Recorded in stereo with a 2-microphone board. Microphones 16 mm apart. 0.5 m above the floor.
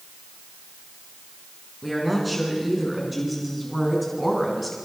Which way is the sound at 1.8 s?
5° left (ahead or behind).